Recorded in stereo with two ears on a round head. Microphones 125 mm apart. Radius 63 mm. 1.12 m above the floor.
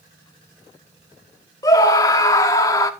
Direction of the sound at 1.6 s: 25° left (ahead or behind).